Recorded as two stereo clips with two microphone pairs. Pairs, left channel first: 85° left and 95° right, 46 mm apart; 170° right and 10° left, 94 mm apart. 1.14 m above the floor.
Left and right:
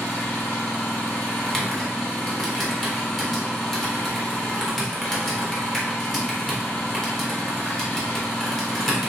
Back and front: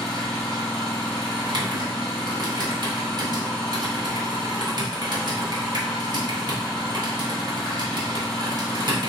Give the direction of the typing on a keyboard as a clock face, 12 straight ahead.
12 o'clock.